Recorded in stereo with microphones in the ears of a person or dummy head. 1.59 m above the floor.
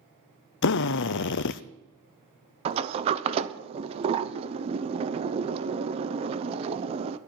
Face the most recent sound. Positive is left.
turn(degrees=-30)  # may be behind; listen again after turning